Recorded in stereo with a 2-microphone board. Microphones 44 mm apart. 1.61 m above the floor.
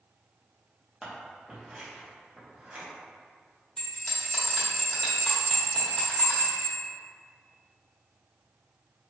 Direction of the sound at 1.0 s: 25° right (ahead or behind).